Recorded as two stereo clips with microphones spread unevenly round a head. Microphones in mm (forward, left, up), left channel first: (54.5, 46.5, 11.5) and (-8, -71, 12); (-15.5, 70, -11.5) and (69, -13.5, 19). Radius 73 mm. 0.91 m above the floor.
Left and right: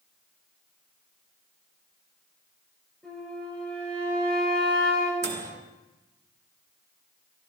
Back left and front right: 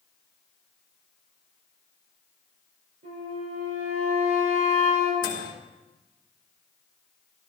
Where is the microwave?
165° right, 1.2 m.